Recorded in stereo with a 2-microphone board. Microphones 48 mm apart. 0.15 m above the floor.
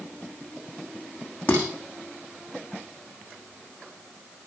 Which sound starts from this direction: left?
Dishes clattering, at 1.5 s.